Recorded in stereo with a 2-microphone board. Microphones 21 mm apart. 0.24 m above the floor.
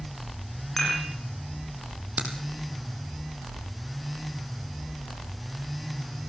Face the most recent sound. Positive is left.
turn(degrees=-75)  # may be behind; listen again after turning